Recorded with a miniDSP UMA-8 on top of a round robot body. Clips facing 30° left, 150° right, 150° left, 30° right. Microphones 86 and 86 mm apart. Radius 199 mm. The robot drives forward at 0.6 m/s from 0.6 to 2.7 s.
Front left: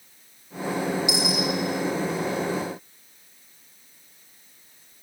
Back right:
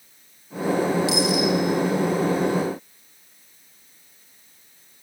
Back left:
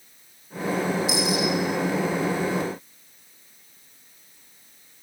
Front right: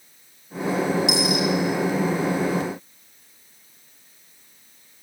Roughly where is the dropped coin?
Ahead right.